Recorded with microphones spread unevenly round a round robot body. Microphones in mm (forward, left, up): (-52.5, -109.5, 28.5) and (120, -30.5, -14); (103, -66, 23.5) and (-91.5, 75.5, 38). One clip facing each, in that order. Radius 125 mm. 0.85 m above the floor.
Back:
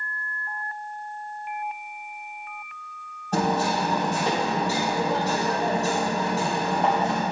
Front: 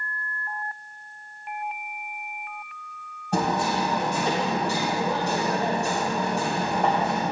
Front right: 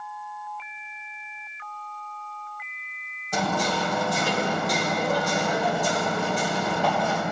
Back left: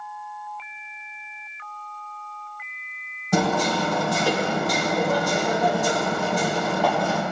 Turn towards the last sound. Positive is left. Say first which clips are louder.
# back 1 dB, back left 5 dB
turn(degrees=110)